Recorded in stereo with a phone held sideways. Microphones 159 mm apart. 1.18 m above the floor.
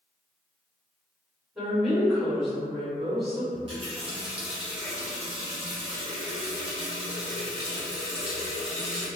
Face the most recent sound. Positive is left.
turn(degrees=-40)  # may be behind; listen again after turning